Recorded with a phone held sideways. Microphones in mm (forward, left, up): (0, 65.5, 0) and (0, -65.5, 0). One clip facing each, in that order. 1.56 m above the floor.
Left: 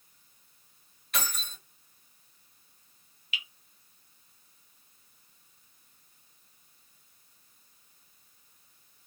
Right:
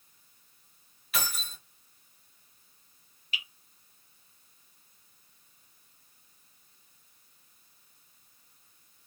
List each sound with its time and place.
1.1 s keys jangling: 5° right (ahead or behind), 0.9 m
3.3 s dripping: 40° right (ahead or behind), 1.0 m